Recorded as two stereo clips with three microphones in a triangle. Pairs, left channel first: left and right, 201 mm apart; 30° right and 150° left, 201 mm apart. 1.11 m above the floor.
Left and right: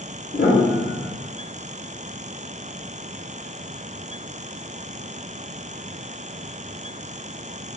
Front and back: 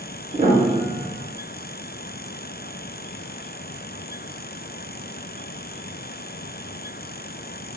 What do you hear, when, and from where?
0.3 s a piano: 110° left, 0.9 m